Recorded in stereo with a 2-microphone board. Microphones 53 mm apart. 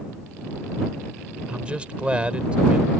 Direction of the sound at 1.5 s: 20° right (ahead or behind).